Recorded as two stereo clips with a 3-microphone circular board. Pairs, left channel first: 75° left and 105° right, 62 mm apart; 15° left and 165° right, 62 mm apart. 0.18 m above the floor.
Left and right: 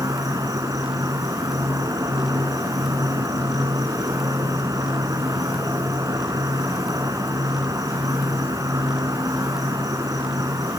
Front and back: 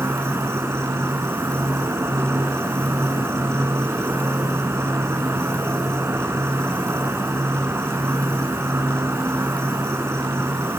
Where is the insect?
120° right, 3 m.